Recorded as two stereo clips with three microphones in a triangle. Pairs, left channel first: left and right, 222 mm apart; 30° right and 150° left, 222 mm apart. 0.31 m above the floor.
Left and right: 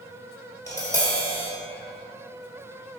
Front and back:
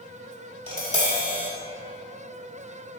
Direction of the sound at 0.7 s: 165° left.